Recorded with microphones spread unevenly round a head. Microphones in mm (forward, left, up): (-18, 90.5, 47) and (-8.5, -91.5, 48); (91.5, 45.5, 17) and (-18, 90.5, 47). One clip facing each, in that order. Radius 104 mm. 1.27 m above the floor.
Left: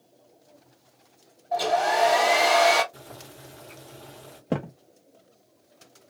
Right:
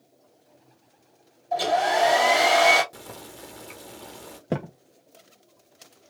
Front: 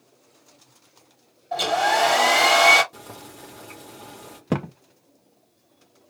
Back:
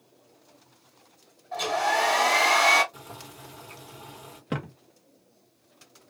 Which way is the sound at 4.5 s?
10° right.